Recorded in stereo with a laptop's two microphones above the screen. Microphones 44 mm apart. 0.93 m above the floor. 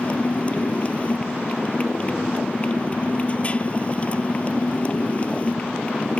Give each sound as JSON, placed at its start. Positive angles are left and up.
{"t": 0.0, "sound": "a motorcycle", "side_deg": 30}